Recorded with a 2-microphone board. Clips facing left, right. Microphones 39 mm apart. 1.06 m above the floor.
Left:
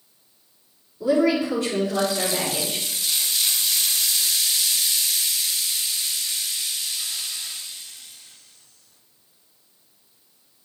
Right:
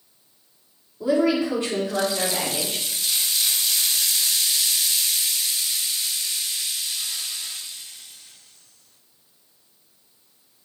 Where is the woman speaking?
25° right (ahead or behind), 2.5 m; by 2.9 s 30° right (ahead or behind), 4.5 m.